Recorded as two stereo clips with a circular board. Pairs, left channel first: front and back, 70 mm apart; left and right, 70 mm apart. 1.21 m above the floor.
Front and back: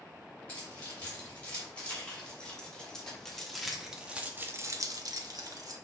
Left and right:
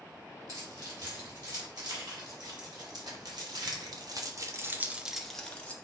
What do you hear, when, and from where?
0.5 s keys jangling: 65° right, 4.5 m; by 5.7 s 160° left, 1.3 m